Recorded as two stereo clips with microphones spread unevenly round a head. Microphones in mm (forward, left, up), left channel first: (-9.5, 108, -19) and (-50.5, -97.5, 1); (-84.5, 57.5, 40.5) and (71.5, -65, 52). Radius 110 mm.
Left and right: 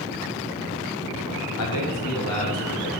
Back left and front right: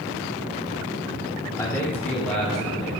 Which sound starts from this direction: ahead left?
A man speaking, at 1.6 s.